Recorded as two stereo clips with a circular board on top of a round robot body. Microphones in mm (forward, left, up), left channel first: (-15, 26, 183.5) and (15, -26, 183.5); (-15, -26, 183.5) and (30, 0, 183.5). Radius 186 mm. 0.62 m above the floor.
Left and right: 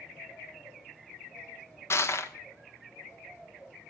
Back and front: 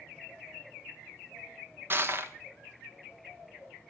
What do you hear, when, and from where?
1.9 s crushing: 75° left, 1.0 m